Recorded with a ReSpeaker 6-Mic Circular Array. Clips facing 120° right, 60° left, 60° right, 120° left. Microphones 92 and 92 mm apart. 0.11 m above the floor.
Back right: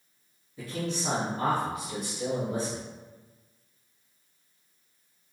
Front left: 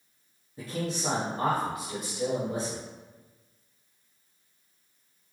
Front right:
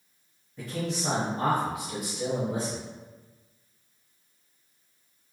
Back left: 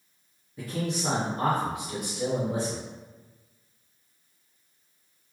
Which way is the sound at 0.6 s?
45° left.